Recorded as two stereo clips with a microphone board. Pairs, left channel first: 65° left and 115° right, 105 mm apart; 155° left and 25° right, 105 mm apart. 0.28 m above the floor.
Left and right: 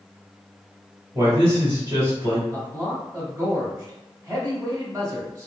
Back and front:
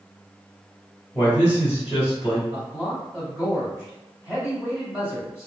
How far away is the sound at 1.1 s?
About 1.6 m.